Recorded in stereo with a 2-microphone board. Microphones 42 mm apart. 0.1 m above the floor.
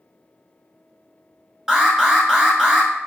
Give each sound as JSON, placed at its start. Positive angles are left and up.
{"t": 1.7, "sound": "an alarm", "side_deg": -15, "distance_m": 1.0}